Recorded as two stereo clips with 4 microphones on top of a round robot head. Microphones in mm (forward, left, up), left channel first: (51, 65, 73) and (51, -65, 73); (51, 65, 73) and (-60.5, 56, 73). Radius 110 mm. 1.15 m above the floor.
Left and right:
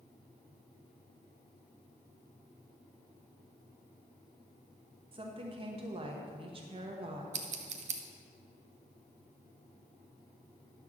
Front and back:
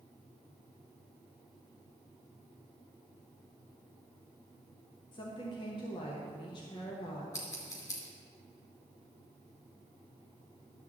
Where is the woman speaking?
45° right, 1.1 m.